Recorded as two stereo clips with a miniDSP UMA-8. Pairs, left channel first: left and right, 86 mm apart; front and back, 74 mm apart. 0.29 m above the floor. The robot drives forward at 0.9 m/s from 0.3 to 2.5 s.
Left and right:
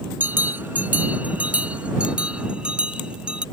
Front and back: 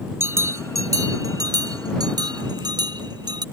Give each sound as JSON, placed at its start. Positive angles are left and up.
{"t": 0.2, "sound": "a bell", "azimuth_deg": -145}